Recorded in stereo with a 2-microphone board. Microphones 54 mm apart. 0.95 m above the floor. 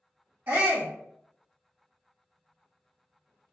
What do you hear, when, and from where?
0.5 s a shout: 35° right (ahead or behind), 1.5 m